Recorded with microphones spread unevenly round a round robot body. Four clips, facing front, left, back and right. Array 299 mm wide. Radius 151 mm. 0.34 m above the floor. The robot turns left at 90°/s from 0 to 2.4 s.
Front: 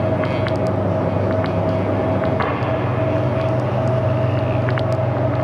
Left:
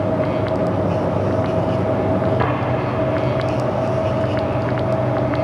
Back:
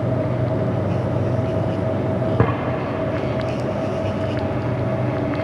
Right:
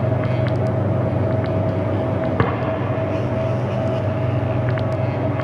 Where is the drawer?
140° right, 1.2 m; by 2.5 s 145° right, 1.2 m.